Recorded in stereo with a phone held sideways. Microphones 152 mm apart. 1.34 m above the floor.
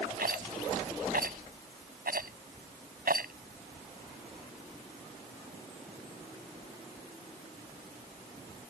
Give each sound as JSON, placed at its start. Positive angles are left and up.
{"t": 0.2, "sound": "a rattle", "side_deg": -80}